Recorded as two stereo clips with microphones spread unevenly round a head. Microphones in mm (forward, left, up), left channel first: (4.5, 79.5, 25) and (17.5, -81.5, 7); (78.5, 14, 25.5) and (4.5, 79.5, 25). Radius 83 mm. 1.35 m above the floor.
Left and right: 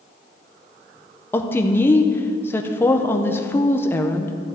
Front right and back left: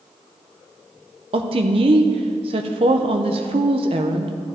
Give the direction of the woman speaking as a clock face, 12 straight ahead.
6 o'clock.